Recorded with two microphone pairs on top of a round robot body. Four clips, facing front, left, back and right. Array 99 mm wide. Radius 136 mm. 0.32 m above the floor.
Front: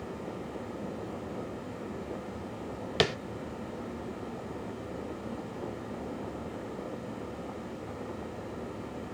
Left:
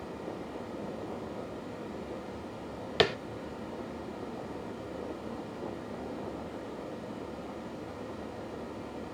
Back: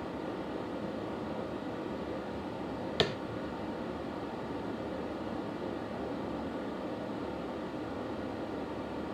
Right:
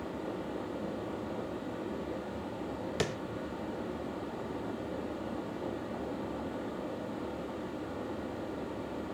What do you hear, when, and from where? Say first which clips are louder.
0.0 s running water: right 2 dB, back 1 dB; 130° right, 7 m
3.0 s tapping: left 8 dB, front 4 dB; 75° left, 0.9 m